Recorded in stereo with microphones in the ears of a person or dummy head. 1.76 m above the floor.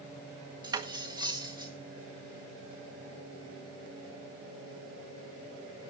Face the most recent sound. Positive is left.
turn(degrees=-15)  # may be behind; listen again after turning